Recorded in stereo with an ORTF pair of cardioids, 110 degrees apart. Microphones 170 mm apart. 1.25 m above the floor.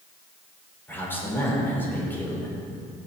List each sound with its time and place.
0.9 s a man speaking: 10° left, 4.5 m